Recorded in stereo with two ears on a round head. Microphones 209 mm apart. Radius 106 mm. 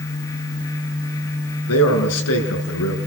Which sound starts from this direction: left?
A man speaking, at 1.7 s.